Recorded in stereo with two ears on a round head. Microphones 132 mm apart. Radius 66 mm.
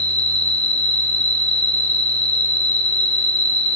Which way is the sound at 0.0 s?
10° left (ahead or behind).